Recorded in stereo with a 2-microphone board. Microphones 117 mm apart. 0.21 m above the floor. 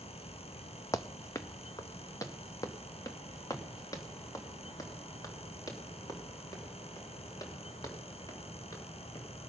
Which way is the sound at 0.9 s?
25° left (ahead or behind).